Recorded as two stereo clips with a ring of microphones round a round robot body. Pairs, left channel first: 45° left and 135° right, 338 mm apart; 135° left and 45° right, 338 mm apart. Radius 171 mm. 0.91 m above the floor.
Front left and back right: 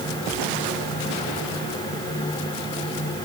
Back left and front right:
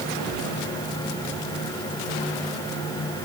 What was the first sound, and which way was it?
Only background noise.